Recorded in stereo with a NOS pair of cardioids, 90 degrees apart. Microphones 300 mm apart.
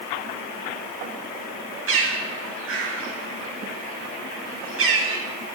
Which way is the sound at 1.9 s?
45° right.